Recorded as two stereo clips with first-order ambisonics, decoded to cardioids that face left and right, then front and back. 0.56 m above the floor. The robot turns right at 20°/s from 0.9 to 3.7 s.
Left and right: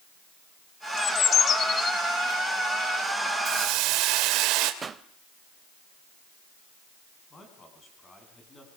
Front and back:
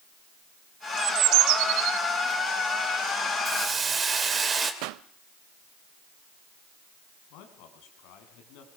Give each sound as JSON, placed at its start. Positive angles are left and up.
{"t": 1.0, "sound": "a bird", "azimuth_deg": 145, "distance_m": 0.5}
{"t": 3.5, "sound": "a hiss", "azimuth_deg": -115, "distance_m": 2.5}
{"t": 4.8, "sound": "a pop", "azimuth_deg": -160, "distance_m": 0.7}
{"t": 7.3, "sound": "a man speaking", "azimuth_deg": 15, "distance_m": 6.0}